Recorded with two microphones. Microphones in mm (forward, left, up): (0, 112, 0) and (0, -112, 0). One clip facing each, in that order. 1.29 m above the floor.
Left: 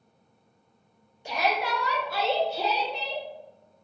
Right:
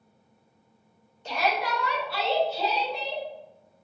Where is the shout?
10° left (ahead or behind), 0.9 m; by 3.2 s 75° left (ahead or behind), 1.2 m.